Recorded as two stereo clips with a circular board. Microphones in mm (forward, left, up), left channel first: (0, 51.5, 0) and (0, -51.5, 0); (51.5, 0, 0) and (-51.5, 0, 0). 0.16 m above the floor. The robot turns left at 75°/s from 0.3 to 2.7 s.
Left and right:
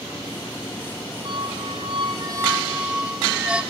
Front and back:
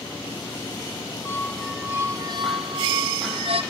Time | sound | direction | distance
1.2 | a squeak | 60° right | 0.9 m